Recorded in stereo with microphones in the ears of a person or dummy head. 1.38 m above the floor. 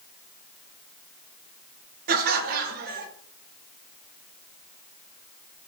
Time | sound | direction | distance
2.1 | laughter | 50° right (ahead or behind) | 0.6 m